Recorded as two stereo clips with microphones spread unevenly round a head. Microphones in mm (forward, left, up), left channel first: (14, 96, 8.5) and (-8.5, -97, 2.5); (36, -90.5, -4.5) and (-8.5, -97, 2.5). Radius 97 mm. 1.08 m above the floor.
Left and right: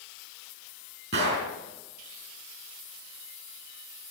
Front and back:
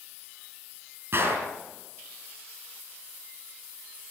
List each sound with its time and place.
1.1 s a gunshot: 130° right, 5 m